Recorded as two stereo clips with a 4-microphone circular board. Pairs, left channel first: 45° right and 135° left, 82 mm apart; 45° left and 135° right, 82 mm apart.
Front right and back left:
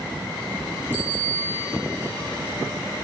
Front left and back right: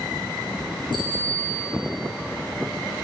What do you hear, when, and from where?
0.9 s a bicycle bell: 25° left, 6 m